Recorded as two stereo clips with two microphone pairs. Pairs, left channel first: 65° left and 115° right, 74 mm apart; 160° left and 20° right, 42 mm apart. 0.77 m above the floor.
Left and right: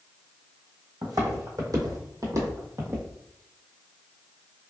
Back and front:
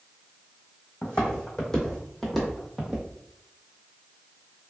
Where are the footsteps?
140° right, 1.5 m; by 3.1 s 85° right, 1.0 m.